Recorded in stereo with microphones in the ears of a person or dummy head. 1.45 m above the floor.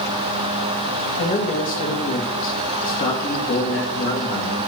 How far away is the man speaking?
About 2 m.